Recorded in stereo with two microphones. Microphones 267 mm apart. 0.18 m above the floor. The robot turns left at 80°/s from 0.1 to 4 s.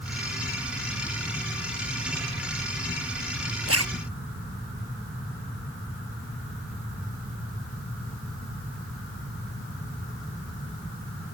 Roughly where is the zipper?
Right.